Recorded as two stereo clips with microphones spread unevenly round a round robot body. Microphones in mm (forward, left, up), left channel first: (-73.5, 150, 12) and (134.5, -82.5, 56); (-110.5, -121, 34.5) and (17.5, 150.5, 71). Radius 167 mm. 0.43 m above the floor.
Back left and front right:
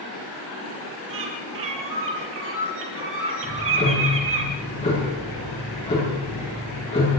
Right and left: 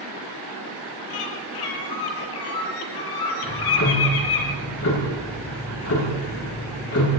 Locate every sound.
1.1 s a bird: 105° right, 3.5 m
3.4 s ticking: 155° right, 8.5 m